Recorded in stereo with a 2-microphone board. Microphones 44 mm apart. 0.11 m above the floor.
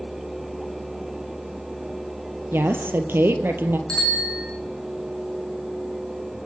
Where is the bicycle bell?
20° left (ahead or behind), 4.5 m.